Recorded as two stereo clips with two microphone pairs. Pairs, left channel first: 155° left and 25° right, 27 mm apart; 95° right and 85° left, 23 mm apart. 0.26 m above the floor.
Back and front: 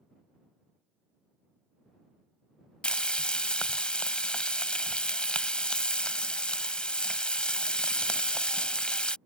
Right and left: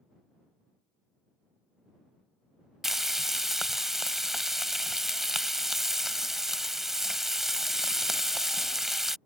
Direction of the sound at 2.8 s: 160° left.